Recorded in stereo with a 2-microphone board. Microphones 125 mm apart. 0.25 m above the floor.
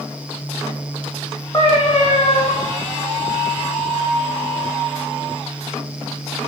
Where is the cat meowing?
35° left (ahead or behind), 3 m.